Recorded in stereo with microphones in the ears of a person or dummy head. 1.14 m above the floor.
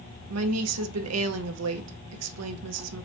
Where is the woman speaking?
75° right (ahead or behind), 0.6 m.